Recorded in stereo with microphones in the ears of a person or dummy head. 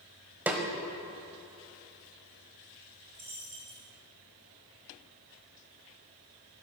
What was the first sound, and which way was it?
A snare drum, 10° right (ahead or behind).